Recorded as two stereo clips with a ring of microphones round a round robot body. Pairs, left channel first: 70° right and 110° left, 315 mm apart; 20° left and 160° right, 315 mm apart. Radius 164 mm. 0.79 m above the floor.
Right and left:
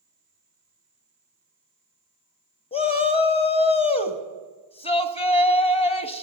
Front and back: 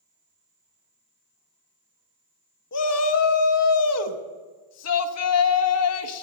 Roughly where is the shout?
Ahead.